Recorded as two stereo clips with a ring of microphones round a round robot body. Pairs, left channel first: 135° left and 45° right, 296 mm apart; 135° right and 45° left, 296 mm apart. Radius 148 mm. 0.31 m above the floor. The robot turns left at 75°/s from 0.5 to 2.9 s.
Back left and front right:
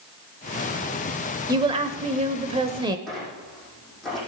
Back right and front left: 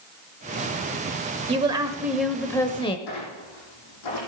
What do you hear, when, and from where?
1.5 s a woman speaking: 10° left, 0.9 m; by 3.0 s 95° right, 0.9 m
3.1 s a squeak: 135° right, 6.5 m